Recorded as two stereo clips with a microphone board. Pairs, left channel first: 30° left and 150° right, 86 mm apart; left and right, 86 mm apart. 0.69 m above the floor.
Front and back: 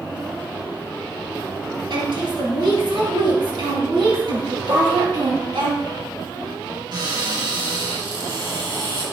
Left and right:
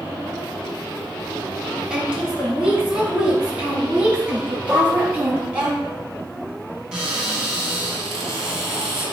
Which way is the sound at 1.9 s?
165° right.